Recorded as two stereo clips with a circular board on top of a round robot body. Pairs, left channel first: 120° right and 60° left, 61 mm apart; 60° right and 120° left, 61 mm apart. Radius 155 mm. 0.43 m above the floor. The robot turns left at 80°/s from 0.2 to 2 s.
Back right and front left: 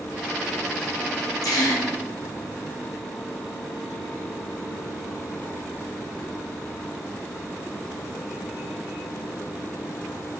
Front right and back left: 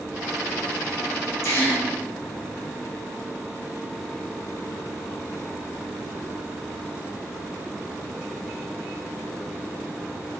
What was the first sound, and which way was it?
A gasp, 105° right.